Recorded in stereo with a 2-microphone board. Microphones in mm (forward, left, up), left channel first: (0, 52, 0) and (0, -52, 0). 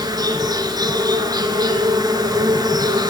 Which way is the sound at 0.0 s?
40° right (ahead or behind).